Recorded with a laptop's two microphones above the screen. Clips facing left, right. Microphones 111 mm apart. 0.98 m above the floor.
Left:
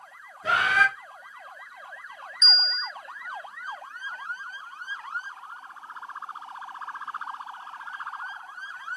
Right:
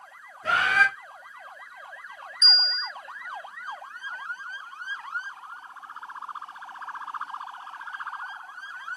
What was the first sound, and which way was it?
A bird, 5° left (ahead or behind).